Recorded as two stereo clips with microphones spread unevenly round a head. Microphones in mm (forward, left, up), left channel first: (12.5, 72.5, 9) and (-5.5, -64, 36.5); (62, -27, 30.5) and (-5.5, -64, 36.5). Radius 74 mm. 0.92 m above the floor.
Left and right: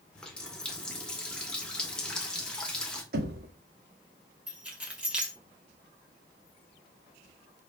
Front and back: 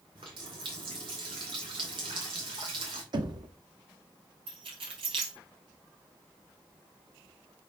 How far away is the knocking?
About 1.5 m.